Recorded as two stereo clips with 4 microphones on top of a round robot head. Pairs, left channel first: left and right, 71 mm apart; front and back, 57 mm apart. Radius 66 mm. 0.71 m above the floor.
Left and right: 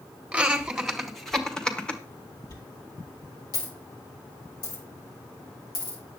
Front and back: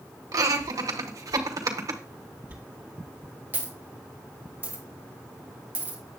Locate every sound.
0.3 s laughter: 165° right, 2.0 m; by 2.0 s 165° left, 1.9 m
2.5 s a dropped coin: 115° left, 3.5 m